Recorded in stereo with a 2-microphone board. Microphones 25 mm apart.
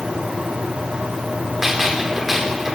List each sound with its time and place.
1.6 s a gunshot: 10° right (ahead or behind), 4 m